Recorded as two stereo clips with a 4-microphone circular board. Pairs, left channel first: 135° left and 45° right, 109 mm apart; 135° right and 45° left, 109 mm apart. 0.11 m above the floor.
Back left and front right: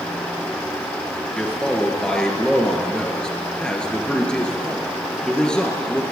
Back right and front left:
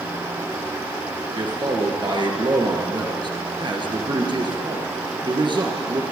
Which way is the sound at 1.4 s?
55° left.